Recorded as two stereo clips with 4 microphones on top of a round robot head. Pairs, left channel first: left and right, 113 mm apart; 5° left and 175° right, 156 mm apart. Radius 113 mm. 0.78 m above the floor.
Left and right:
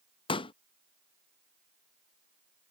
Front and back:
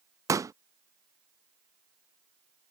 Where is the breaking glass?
No breaking glass in this recording.